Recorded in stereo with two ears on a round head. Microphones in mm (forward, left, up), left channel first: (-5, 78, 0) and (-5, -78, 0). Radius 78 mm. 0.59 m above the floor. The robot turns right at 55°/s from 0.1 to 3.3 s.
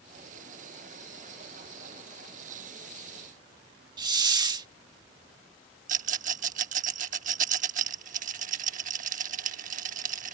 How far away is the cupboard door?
I don't hear a cupboard door.